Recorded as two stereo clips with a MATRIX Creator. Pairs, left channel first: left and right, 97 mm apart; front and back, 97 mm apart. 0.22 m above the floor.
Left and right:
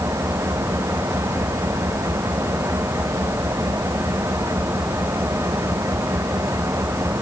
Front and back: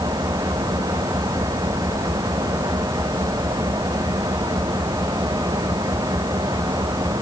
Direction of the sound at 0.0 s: 145° right.